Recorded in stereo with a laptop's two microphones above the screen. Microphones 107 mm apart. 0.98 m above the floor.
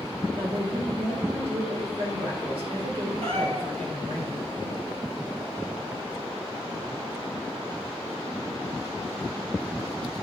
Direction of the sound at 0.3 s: 65° right (ahead or behind).